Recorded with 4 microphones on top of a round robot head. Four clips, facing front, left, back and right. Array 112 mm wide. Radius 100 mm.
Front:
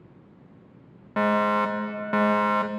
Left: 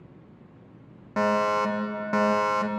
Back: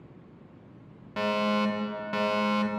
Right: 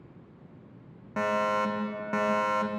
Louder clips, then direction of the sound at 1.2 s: Left 4 dB, front 5 dB; 25° left.